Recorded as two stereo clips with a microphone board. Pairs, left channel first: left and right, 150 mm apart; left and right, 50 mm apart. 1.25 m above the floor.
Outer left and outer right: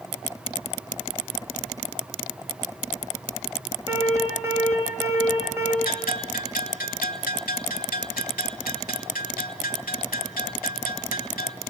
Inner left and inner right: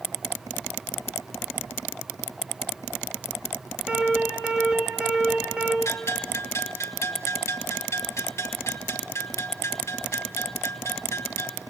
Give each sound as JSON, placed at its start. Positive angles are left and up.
{"t": 3.9, "sound": "an alarm", "side_deg": -20, "distance_m": 4.0}
{"t": 5.8, "sound": "a bell", "side_deg": 75, "distance_m": 3.0}